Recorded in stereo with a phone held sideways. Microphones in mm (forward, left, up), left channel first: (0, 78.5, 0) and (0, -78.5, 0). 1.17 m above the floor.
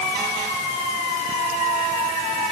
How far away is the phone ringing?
I don't hear a phone ringing.